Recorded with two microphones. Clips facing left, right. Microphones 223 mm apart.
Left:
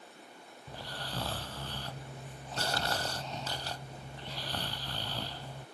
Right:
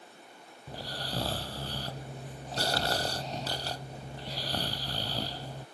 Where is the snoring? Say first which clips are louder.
Right 4 dB; 40° right (ahead or behind).